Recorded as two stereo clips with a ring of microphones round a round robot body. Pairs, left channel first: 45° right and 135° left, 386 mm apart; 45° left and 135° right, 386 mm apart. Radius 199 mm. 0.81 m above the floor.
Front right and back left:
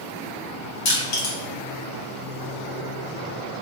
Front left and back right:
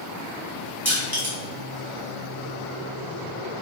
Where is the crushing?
50° right, 1.2 m.